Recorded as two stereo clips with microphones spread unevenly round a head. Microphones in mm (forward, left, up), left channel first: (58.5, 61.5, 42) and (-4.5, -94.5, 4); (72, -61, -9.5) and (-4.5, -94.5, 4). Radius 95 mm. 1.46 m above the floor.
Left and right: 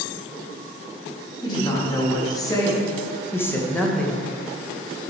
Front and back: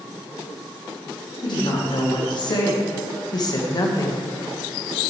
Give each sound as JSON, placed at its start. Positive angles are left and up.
{"t": 1.4, "sound": "a woman speaking", "azimuth_deg": 0, "distance_m": 3.0}